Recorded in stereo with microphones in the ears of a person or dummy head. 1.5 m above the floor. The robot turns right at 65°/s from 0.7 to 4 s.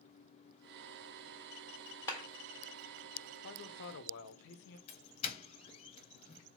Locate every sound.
2.1 s a clap: 15° left (ahead or behind), 1.4 m; by 2.2 s 25° left (ahead or behind), 1.4 m
3.4 s a man speaking: 60° left, 0.6 m; by 4.8 s 95° left, 0.6 m
4.9 s a doorbell: 35° left (ahead or behind), 0.8 m